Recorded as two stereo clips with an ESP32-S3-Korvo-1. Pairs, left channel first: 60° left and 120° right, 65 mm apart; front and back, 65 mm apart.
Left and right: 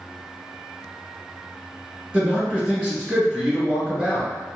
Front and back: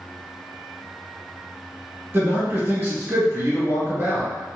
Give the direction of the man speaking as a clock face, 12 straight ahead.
6 o'clock.